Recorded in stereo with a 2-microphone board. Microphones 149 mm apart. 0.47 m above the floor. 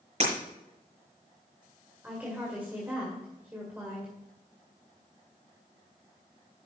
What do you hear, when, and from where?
0.2 s breaking glass: 45° right (ahead or behind), 5 m
2.0 s a woman speaking: 10° right (ahead or behind), 2 m